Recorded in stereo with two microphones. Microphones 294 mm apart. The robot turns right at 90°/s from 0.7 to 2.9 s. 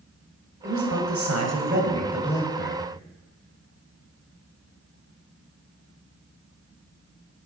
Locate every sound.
0.6 s a man speaking: 135° right, 1.9 m; by 2.9 s 60° left, 1.9 m